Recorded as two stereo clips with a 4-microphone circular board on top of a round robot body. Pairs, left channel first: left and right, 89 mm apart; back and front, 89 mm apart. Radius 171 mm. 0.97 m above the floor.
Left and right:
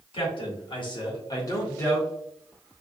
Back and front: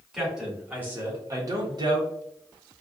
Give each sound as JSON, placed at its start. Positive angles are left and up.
{"t": 0.1, "sound": "a man speaking", "azimuth_deg": 85, "distance_m": 1.4}